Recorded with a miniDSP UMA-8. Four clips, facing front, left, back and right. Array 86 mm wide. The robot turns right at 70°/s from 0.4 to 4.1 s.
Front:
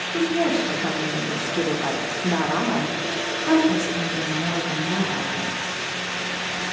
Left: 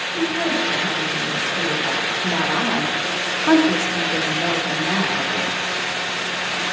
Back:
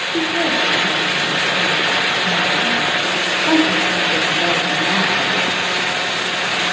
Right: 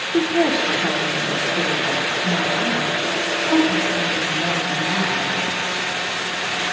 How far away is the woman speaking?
About 1.4 m.